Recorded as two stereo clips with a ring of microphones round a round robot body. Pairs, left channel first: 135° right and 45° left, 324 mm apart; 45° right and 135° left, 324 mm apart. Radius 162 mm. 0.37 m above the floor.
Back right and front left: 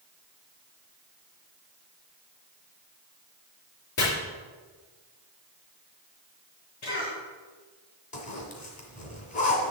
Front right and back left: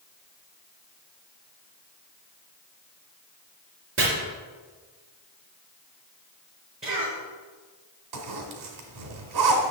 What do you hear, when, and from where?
4.0 s chopping: 175° right, 4 m
6.8 s a cough: 150° right, 3.5 m
8.1 s a zipper: 160° left, 1.7 m